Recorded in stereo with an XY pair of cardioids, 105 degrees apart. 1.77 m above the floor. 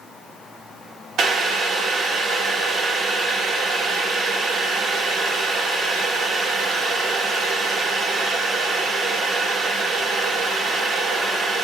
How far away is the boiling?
About 4.5 m.